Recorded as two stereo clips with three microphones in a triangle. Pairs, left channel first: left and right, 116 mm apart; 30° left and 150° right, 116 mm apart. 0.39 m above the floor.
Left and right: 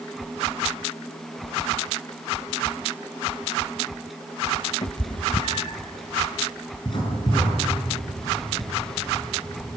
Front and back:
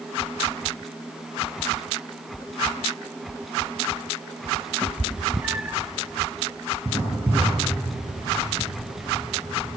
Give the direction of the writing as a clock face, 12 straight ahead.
7 o'clock.